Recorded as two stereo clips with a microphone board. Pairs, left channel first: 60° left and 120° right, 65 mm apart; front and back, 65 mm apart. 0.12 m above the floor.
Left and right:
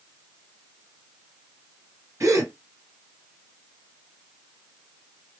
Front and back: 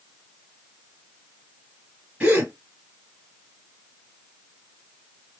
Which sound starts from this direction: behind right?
A gasp, at 2.2 s.